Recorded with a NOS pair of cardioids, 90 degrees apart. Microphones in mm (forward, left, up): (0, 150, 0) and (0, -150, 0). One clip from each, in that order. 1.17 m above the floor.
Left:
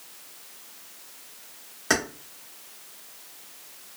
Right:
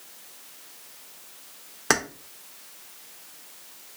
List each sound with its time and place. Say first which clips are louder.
1.9 s keys jangling: right 1 dB; 35° right, 0.7 m